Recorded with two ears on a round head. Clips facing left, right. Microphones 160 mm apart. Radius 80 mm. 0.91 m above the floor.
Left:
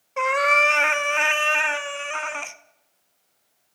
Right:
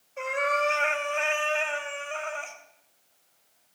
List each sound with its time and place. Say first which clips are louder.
0.2 s a cat meowing: left 5 dB; 80° left, 0.6 m